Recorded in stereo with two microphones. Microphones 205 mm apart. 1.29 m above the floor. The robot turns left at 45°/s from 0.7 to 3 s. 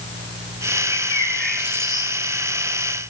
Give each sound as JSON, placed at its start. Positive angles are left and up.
{"t": 0.9, "sound": "a bird", "azimuth_deg": 30, "distance_m": 3.0}